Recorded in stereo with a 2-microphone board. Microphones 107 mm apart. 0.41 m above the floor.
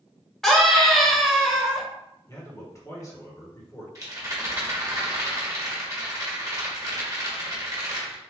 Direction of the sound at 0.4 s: 5° left (ahead or behind).